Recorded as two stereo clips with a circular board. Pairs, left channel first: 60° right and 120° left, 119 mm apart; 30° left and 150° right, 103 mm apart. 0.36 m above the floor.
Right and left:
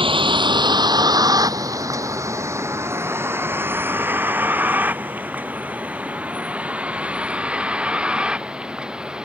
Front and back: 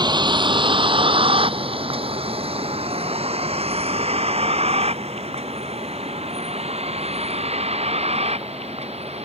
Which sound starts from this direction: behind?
A vehicle, at 0.0 s.